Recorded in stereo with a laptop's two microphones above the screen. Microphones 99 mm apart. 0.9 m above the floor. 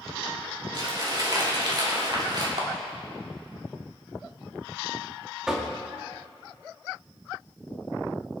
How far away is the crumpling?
About 3.5 m.